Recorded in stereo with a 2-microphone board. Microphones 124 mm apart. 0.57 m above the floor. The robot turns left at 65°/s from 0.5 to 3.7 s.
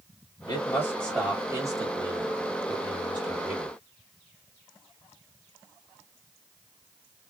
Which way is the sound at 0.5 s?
45° left.